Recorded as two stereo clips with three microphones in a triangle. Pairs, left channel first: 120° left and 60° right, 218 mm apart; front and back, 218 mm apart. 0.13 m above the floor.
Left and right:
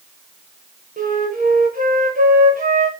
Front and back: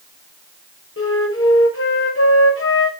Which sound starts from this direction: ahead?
A flute, at 1.0 s.